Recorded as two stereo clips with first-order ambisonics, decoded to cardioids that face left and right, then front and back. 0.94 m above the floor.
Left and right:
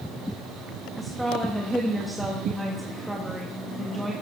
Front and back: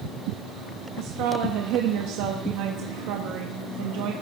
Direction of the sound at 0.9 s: 175° right.